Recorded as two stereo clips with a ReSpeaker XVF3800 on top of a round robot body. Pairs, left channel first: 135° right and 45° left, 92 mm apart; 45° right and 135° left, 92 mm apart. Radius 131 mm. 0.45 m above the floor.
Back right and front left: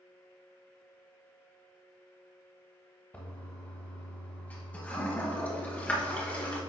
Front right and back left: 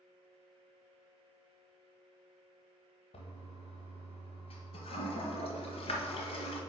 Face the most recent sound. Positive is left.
turn(degrees=-60)